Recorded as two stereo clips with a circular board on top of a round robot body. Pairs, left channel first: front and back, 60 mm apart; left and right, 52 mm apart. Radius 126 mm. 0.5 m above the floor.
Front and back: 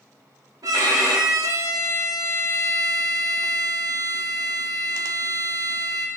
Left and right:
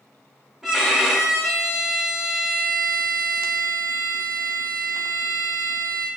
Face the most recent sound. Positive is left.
turn(degrees=-170)